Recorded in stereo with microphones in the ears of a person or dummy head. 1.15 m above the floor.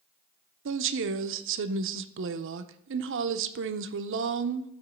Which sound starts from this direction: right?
A woman speaking, at 0.7 s.